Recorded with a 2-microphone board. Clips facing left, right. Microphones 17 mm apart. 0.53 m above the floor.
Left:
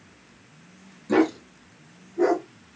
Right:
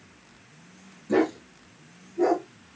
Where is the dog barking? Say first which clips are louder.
Left 2 dB; 60° left (ahead or behind), 1.4 m; by 2.5 s 50° left (ahead or behind), 2.5 m.